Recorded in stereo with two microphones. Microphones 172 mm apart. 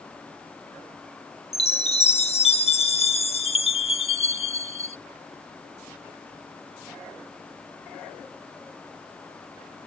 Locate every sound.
1.5 s a chime: 40° left (ahead or behind)